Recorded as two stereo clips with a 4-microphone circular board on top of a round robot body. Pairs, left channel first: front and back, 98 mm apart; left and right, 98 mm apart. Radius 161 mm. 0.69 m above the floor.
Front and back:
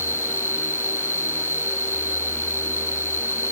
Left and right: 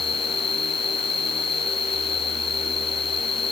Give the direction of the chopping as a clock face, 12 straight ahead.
No chopping in this recording.